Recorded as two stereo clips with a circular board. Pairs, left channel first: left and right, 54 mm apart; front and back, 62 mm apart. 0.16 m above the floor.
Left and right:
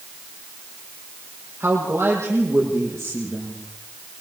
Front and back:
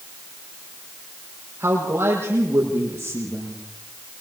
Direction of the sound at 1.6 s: 130° right.